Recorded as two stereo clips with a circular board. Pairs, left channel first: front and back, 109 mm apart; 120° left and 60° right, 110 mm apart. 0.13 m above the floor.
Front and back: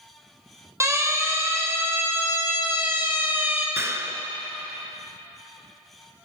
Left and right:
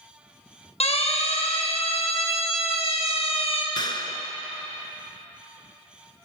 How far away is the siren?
About 4 m.